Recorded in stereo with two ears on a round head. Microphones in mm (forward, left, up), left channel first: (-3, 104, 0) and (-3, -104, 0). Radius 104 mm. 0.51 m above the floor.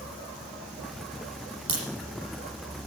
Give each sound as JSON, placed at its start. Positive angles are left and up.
{"t": 1.7, "sound": "a crack", "side_deg": -65, "distance_m": 7.0}